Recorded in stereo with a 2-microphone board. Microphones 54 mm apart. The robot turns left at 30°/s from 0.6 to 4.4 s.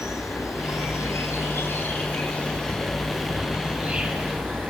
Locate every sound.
0.0 s an insect: 75° left, 4.5 m; by 4.7 s 35° right, 4.5 m